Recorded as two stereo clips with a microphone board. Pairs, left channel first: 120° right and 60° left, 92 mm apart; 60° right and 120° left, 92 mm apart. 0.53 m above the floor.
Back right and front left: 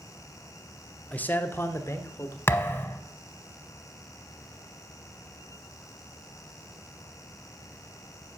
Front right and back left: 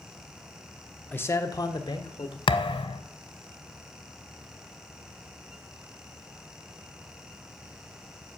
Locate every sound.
1.1 s a man speaking: 75° right, 0.7 m; by 2.4 s 65° right, 1.5 m
2.5 s a thud: 55° right, 0.7 m